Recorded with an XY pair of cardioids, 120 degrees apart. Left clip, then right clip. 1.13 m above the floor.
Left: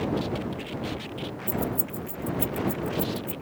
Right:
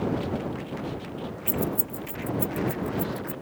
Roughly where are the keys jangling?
Ahead right.